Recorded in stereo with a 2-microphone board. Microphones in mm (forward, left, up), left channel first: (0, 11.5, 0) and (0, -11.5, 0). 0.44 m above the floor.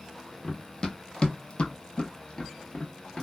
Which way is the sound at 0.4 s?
25° left (ahead or behind).